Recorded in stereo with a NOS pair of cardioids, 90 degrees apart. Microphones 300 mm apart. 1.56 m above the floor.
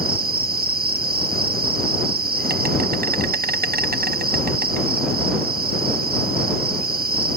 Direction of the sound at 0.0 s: 30° right.